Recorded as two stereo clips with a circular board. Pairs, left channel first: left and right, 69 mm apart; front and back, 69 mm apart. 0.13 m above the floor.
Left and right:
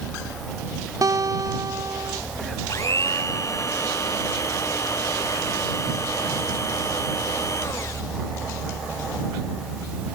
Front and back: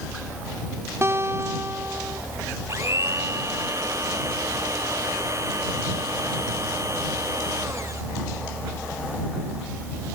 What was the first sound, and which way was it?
A guitar, 125° right.